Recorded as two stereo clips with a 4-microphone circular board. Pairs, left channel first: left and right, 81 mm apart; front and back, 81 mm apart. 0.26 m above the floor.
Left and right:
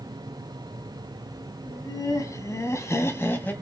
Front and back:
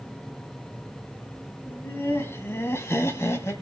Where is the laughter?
55° left, 2.5 m; by 3.5 s 35° left, 1.6 m.